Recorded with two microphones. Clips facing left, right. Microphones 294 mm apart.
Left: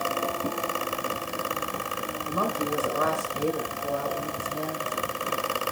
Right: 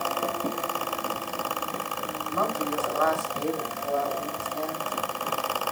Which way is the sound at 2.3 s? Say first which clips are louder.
Left 1 dB; 45° left (ahead or behind).